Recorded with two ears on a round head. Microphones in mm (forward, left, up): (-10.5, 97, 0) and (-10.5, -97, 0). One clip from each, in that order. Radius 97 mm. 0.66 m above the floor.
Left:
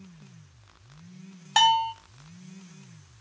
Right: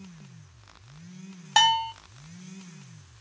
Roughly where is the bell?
Centre.